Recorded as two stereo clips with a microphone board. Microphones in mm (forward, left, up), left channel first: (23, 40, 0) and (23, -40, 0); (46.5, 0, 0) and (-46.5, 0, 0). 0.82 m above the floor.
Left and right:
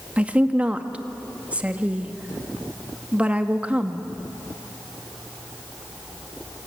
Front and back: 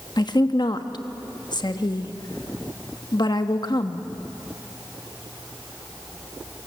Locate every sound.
0.2 s a woman speaking: 20° right, 1.2 m